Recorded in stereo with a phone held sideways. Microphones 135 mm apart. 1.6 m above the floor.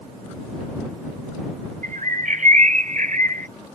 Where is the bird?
65° right (ahead or behind).